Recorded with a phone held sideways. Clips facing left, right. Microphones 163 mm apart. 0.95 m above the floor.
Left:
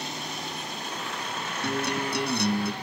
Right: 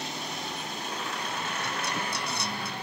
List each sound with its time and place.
1.6 s a guitar: 60° left (ahead or behind)